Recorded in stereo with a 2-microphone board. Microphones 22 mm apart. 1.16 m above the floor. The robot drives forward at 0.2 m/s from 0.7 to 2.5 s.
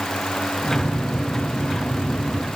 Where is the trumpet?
I don't hear a trumpet.